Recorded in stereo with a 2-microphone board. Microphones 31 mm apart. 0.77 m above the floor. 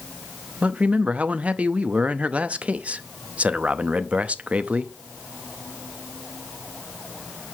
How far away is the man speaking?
About 0.6 m.